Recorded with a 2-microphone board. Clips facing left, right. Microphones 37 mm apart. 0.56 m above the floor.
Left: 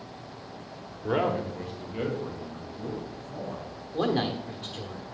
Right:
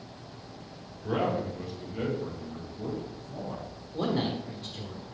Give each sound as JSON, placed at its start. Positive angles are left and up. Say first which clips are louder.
{"t": 1.0, "sound": "a man speaking", "louder": "left 2 dB", "side_deg": 60, "distance_m": 1.4}
{"t": 3.9, "sound": "a man speaking", "louder": "left 3 dB", "side_deg": 60, "distance_m": 1.1}